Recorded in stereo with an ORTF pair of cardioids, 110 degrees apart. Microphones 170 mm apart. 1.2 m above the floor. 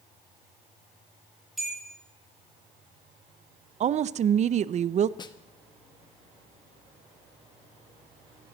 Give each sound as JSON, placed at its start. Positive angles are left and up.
{"t": 1.6, "sound": "a bell", "azimuth_deg": 0, "distance_m": 8.0}
{"t": 3.8, "sound": "a woman speaking", "azimuth_deg": -40, "distance_m": 0.6}
{"t": 5.2, "sound": "a snare drum", "azimuth_deg": 25, "distance_m": 0.9}